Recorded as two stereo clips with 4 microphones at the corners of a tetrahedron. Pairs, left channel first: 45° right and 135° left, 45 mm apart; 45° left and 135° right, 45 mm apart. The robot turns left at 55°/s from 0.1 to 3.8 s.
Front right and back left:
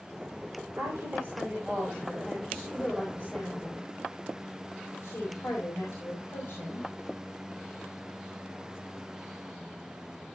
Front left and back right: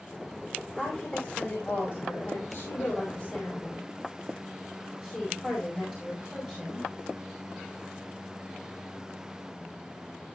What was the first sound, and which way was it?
A woman speaking, 140° left.